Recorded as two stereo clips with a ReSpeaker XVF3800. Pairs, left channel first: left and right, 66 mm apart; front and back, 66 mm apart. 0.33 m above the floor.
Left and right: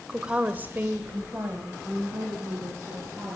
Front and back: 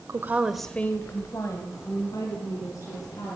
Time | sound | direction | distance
0.1 | a woman speaking | 165° right | 1.1 m